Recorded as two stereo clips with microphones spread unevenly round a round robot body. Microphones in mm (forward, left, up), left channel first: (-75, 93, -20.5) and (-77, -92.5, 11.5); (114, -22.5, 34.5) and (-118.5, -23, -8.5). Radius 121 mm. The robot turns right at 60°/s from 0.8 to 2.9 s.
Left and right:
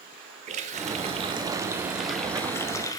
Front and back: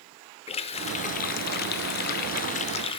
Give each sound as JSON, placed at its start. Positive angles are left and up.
{"t": 0.5, "sound": "a running tap", "azimuth_deg": -60, "distance_m": 0.5}